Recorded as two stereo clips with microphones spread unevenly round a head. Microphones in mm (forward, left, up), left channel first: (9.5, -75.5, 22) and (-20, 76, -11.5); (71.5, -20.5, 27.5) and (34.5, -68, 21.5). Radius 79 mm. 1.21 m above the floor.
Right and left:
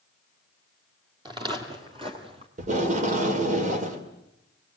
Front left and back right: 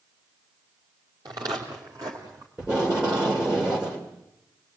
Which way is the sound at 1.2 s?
165° left.